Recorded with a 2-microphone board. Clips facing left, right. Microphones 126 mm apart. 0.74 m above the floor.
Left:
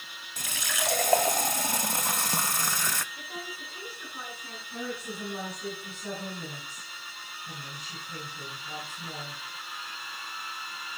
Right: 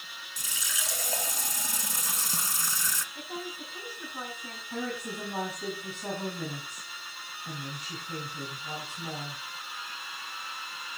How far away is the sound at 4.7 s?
About 7 m.